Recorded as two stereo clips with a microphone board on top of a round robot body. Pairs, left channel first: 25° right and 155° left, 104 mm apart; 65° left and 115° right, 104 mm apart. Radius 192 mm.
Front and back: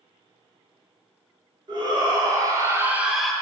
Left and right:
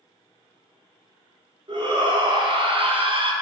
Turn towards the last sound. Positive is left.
turn(degrees=-105)